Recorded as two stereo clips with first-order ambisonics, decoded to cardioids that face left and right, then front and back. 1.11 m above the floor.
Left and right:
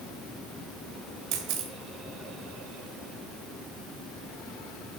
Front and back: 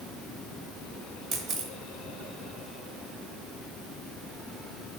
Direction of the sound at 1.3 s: 120° right.